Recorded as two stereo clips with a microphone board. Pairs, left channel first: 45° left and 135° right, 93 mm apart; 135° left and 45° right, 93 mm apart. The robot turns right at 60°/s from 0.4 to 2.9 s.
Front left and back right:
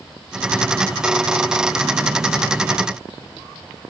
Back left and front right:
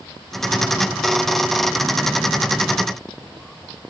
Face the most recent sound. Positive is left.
No sound to turn to.